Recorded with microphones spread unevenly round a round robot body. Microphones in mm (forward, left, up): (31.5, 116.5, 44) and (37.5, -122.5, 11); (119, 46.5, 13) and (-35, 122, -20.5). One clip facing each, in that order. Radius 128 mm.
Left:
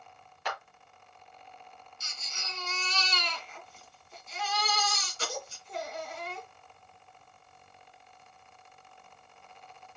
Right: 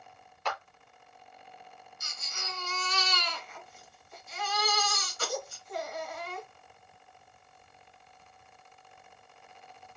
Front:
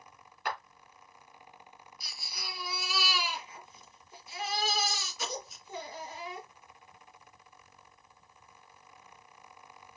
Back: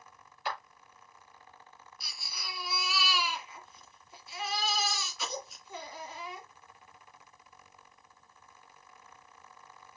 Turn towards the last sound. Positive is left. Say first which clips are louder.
# right 4 dB, front 1 dB
turn(degrees=25)